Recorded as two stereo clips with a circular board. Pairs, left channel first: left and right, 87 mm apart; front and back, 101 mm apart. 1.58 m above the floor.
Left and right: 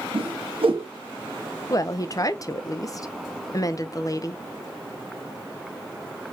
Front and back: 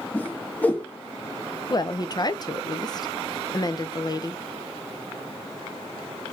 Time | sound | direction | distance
0.1 | a whoosh | 75° right | 1.2 m
1.7 | a woman speaking | 45° left | 0.6 m